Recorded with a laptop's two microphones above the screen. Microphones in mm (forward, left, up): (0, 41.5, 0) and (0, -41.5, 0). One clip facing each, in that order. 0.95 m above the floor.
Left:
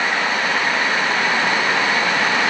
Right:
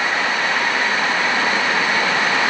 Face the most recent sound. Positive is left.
No sound to turn to.